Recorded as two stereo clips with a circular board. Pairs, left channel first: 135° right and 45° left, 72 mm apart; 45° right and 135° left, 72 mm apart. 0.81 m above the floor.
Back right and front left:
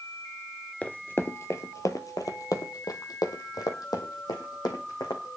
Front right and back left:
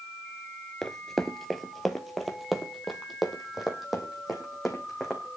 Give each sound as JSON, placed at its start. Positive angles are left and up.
{"t": 0.8, "sound": "running footsteps", "azimuth_deg": -120, "distance_m": 0.8}